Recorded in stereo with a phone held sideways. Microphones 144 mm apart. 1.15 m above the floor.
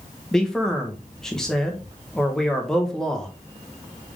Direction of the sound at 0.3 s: 5° left (ahead or behind).